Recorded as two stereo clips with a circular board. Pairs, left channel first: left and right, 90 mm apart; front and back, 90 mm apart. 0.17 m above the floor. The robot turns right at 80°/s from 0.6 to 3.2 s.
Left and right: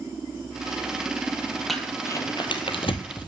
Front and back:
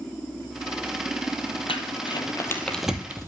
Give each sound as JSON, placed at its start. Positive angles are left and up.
{"t": 1.7, "sound": "crumpling", "azimuth_deg": 0, "distance_m": 1.1}